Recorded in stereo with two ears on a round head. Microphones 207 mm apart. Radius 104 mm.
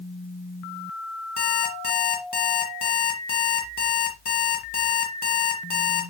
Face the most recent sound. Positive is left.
turn(degrees=40)  # may be behind; listen again after turning